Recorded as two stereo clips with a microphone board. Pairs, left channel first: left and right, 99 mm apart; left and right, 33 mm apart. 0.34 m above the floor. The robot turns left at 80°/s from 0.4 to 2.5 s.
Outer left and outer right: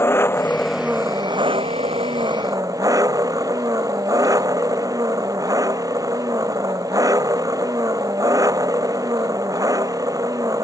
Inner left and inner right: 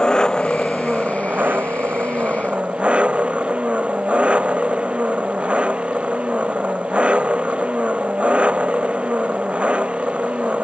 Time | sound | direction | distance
0.0 | an engine running | 25° left | ?